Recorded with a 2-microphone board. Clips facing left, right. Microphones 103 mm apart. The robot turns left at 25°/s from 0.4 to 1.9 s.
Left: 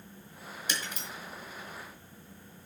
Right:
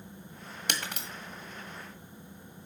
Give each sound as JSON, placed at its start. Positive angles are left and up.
{"t": 0.7, "sound": "breaking glass", "side_deg": -70, "distance_m": 1.7}